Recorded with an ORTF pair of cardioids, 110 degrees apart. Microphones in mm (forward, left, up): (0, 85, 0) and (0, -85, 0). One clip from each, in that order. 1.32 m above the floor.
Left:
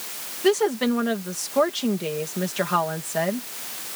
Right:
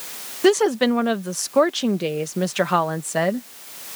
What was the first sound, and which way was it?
A woman speaking, 65° right.